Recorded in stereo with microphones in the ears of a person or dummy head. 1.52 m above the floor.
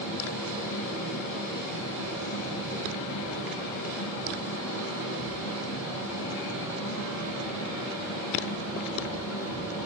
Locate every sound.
0.0 s a fan: 75° left (ahead or behind), 4.5 m